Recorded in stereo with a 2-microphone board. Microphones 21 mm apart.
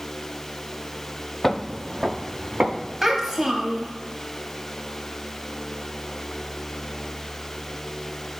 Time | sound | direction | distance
1.4 | footsteps | 20° left (ahead or behind) | 0.6 m
3.0 | a child speaking | 10° right (ahead or behind) | 1.3 m